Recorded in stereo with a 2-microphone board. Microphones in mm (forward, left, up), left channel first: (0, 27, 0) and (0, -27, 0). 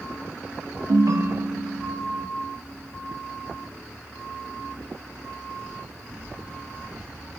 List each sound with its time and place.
0.9 s a ringtone: 85° right, 0.6 m